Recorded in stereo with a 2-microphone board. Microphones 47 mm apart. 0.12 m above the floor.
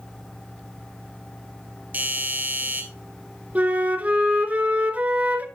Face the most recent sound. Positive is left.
turn(degrees=-35)  # may be behind; listen again after turning